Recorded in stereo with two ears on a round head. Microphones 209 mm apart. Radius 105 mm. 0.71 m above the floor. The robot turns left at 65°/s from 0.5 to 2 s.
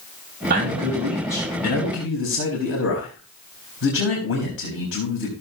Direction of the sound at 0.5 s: 140° right.